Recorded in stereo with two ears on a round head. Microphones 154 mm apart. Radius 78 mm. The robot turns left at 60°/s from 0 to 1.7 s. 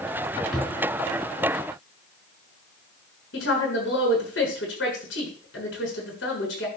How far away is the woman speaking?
About 6 m.